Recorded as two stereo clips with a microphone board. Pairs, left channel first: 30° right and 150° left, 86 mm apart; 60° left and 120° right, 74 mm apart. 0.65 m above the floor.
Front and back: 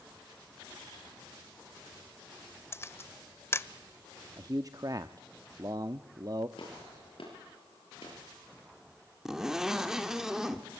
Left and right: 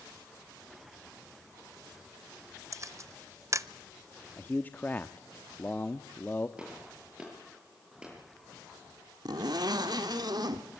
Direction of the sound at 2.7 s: 85° right.